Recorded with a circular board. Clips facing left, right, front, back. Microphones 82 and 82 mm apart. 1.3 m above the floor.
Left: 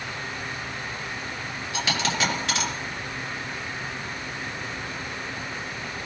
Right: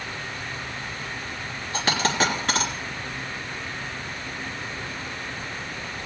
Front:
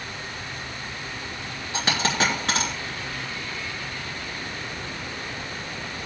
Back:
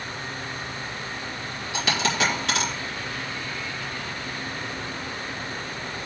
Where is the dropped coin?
45° right, 3 m.